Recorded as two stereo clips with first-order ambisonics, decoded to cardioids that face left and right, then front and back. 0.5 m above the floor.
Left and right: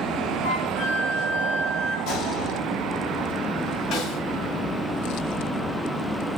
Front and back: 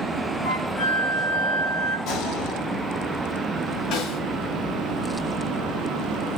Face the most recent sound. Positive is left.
turn(degrees=35)